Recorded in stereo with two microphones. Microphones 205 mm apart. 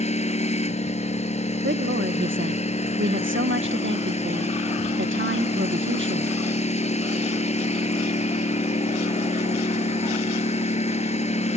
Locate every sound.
0.0 s a lawn mower: 35° left (ahead or behind)
1.6 s a woman speaking: 70° right (ahead or behind)